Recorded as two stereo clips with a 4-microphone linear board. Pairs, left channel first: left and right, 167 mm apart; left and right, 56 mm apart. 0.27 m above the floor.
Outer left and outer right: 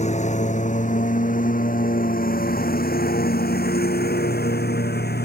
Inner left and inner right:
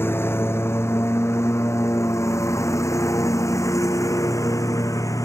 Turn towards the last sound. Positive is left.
turn(degrees=75)  # may be behind; listen again after turning